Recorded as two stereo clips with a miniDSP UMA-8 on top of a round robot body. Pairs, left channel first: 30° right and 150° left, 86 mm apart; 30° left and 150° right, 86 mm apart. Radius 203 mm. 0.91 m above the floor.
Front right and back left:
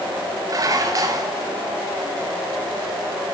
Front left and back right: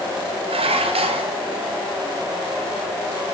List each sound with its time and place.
0.5 s dishes clattering: 155° right, 1.0 m